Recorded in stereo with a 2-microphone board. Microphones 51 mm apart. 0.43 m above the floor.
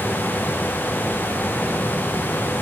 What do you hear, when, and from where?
Only background noise.